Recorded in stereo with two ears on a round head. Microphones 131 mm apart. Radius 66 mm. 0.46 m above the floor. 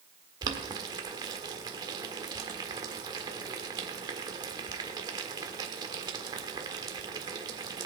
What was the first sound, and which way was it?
Boiling, 30° right (ahead or behind).